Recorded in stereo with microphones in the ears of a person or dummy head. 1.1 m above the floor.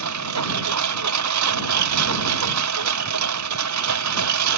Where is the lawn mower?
80° right; by 4.6 s 85° right.